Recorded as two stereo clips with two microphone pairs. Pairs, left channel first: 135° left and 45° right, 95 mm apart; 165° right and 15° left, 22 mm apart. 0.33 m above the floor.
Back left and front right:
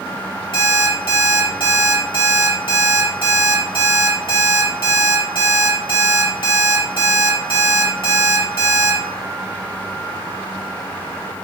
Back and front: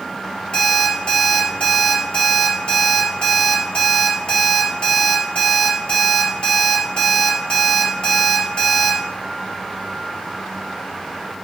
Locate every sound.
0.5 s an alarm clock: 160° left, 3.5 m